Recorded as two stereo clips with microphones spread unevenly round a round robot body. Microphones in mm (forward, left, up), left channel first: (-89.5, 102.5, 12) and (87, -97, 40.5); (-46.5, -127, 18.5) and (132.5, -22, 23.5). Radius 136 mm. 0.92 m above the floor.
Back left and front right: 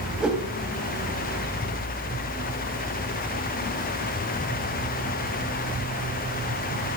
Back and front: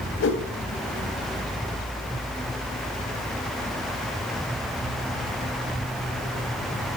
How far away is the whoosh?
About 3 m.